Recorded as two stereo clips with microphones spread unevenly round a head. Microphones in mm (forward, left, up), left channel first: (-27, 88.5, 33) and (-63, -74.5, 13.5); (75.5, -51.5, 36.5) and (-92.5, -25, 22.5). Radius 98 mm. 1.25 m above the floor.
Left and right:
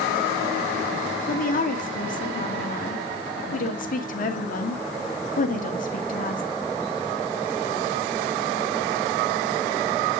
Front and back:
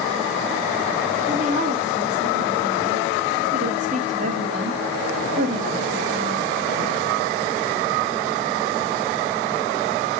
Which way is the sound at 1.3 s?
115° left.